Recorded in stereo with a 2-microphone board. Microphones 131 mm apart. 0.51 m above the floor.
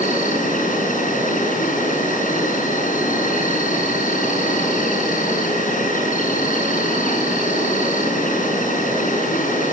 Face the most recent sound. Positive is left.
turn(degrees=80)